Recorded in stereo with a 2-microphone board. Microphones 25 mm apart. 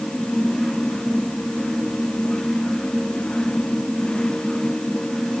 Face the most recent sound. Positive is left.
No sound to turn to.